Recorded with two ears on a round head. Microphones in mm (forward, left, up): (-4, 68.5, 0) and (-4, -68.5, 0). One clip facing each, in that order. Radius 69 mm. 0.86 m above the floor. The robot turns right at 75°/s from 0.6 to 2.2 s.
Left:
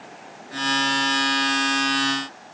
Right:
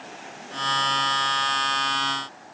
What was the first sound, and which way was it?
Only background noise.